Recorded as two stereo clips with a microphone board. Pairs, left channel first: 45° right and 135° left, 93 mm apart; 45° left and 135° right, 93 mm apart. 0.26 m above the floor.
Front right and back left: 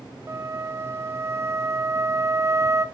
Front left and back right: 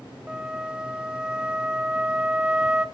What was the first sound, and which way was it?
A flute, 155° left.